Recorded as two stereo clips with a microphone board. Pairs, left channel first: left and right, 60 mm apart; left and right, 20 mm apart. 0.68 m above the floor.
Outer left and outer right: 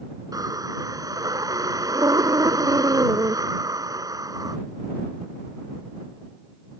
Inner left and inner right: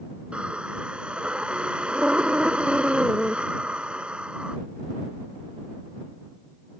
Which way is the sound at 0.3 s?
85° right.